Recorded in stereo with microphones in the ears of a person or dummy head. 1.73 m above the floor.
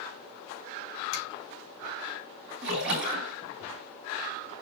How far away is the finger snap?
About 4 m.